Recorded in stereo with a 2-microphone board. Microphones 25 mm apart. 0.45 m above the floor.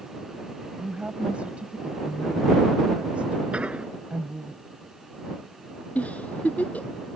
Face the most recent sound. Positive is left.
turn(degrees=75)  # may be behind; listen again after turning